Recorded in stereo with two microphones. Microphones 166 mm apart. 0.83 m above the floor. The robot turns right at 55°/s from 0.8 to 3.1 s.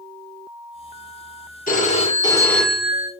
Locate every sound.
1.7 s a phone ringing: 120° left, 0.9 m; by 3.1 s 160° right, 0.9 m